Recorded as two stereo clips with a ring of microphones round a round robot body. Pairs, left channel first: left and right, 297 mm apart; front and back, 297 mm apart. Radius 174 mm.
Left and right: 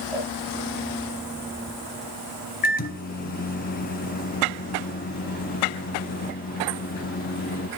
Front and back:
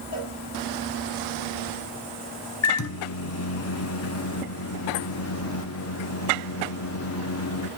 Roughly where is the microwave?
Ahead left.